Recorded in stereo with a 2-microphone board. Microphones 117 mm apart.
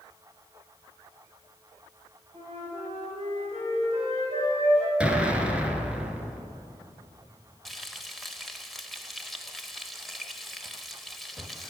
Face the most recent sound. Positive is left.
turn(degrees=0)  # may be behind; listen again after turning